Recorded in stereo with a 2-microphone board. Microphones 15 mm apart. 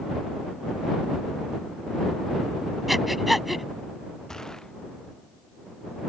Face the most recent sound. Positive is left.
turn(degrees=35)  # may be behind; listen again after turning